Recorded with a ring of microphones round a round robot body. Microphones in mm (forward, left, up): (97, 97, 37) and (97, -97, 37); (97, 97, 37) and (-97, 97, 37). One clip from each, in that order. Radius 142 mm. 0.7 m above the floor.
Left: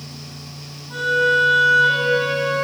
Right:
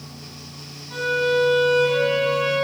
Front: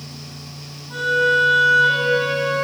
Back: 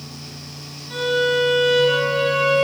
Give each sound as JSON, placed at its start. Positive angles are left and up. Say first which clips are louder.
{"t": 0.9, "sound": "a violin", "louder": "left 4 dB, front 2 dB", "azimuth_deg": 160, "distance_m": 1.6}